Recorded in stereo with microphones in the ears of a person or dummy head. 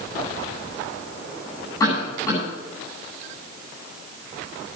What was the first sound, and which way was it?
A cough, 20° left (ahead or behind).